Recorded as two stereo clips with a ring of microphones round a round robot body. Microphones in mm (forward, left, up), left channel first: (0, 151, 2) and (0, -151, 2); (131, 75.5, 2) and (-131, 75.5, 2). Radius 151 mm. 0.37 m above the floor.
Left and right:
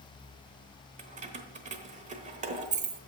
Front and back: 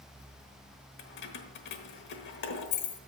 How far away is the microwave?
No microwave in this recording.